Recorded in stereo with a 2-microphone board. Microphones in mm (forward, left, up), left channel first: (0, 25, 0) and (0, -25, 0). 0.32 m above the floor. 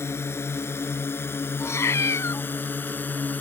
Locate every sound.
0.0 s a drone: 60° left (ahead or behind); by 3.4 s 40° left (ahead or behind)
1.6 s a cat meowing: 65° left (ahead or behind)